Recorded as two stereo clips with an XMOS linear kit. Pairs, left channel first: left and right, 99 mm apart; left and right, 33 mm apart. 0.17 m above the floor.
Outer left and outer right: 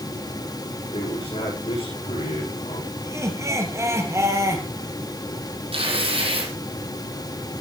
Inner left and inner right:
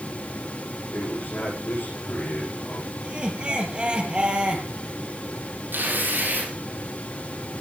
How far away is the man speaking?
About 9.5 m.